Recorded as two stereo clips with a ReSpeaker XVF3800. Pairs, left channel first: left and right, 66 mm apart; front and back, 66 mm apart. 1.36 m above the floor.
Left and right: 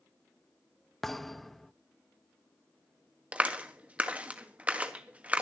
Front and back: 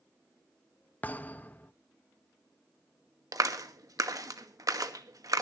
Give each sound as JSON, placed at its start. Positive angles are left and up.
{"t": 1.0, "sound": "a thud", "azimuth_deg": 10, "distance_m": 0.7}
{"t": 3.3, "sound": "a clap", "azimuth_deg": -155, "distance_m": 1.4}